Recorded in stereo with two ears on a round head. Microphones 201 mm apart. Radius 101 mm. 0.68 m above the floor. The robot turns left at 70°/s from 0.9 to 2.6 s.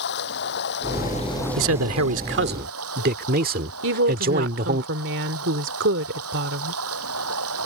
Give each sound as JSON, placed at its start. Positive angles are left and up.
{"t": 0.0, "sound": "running water", "azimuth_deg": 50}
{"t": 1.6, "sound": "a man speaking", "azimuth_deg": -65}
{"t": 3.8, "sound": "a woman speaking", "side_deg": -55}